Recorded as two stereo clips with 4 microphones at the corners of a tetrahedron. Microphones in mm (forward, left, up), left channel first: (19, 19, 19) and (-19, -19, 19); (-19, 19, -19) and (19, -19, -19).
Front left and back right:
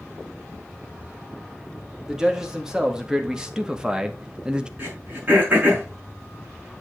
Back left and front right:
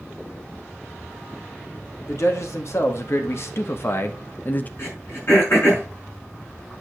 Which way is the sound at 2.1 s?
150° left.